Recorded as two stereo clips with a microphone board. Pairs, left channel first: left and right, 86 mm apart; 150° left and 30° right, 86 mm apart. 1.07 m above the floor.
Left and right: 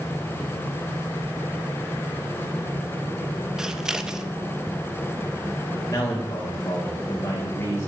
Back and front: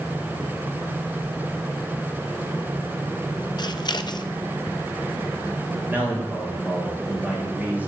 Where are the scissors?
175° right, 0.5 m.